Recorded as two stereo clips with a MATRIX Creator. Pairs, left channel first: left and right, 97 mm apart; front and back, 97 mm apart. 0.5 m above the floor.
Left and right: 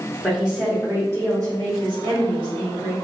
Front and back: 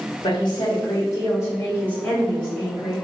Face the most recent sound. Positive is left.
turn(degrees=-90)